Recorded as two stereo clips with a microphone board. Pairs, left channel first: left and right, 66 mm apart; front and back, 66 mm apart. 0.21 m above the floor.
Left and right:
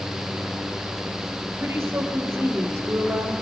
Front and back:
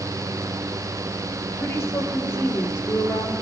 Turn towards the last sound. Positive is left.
turn(degrees=-25)